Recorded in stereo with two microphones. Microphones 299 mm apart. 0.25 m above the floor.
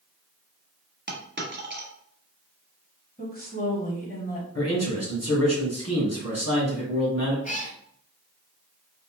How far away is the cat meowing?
About 0.7 m.